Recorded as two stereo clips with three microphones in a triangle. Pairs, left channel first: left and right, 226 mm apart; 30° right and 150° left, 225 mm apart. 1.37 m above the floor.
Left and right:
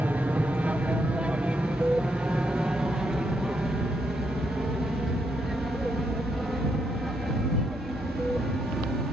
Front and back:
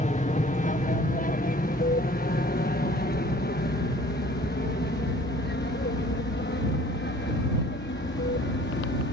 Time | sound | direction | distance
0.0 | an aircraft | 10° right | ?